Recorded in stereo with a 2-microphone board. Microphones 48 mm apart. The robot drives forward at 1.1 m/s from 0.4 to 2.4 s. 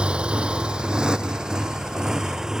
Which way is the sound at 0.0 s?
25° right (ahead or behind).